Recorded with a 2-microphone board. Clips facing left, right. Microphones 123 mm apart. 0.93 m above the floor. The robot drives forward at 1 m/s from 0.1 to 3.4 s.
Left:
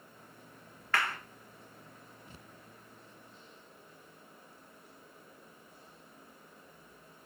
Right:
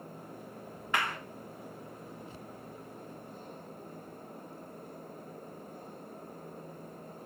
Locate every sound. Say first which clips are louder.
0.9 s a clap: even; 20° right (ahead or behind), 1.1 m; by 1.2 s 15° right (ahead or behind), 1.3 m